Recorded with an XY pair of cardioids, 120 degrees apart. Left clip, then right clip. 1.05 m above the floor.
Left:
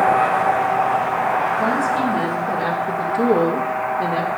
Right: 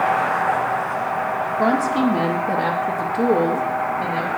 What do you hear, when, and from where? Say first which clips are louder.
1.6 s a woman speaking: even; 50° right, 1.3 m; by 4.3 s 30° left, 1.6 m